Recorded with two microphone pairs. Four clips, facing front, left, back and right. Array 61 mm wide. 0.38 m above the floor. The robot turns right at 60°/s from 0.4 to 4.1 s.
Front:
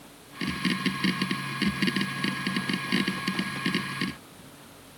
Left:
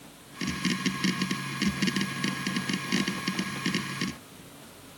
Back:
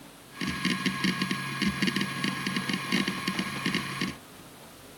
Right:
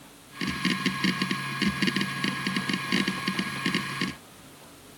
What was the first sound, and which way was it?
Only background noise.